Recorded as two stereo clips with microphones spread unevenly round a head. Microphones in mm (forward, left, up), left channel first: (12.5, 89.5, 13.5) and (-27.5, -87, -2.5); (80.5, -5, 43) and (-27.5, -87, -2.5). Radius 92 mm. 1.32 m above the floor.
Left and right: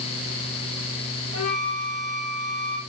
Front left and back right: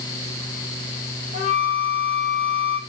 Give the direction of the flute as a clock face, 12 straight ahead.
9 o'clock.